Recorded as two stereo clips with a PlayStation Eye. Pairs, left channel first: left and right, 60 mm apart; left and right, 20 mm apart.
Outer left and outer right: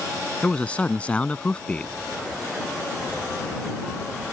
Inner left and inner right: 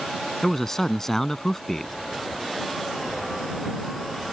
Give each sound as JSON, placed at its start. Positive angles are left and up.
{"t": 0.4, "sound": "a man speaking", "side_deg": 20}